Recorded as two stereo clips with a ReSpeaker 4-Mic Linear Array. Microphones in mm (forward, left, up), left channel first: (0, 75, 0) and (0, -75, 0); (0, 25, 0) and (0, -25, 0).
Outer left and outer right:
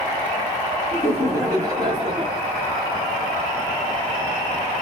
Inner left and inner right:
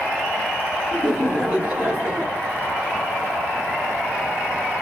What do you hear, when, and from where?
0.9 s laughter: 15° right (ahead or behind), 1.5 m; by 2.5 s 35° right (ahead or behind), 2 m